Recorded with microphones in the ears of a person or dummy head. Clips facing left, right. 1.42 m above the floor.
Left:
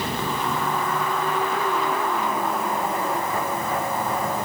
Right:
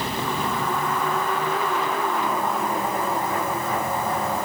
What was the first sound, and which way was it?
Only background noise.